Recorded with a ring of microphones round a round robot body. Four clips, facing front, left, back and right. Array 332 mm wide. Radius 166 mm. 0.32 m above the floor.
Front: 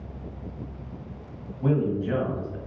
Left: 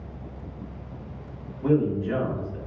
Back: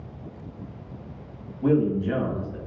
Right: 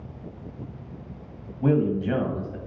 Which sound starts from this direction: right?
A man speaking, at 1.6 s.